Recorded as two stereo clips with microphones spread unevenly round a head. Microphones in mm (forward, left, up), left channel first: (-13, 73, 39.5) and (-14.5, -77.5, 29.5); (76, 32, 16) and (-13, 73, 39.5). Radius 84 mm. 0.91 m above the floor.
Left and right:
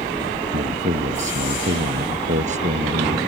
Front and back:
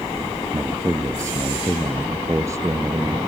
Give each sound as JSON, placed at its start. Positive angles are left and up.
{"t": 0.5, "sound": "a man speaking", "azimuth_deg": -135}